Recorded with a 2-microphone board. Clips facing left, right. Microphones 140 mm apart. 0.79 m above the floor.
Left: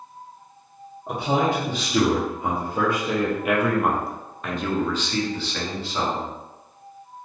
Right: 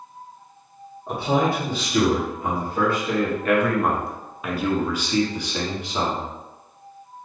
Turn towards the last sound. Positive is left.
turn(degrees=-15)  # may be behind; listen again after turning